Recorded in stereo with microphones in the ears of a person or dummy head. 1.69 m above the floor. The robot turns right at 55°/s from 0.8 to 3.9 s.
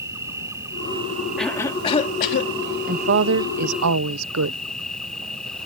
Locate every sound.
0.0 s an insect: 170° right; by 5.7 s straight ahead
1.4 s a cough: straight ahead; by 2.5 s 65° left
2.9 s a woman speaking: 140° right; by 4.6 s 85° right